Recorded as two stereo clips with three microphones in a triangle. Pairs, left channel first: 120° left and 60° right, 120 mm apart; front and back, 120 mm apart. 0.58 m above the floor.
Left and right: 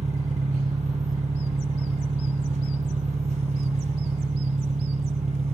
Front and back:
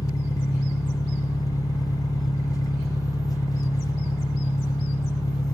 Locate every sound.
0.0 s an engine running: 60° right, 0.9 m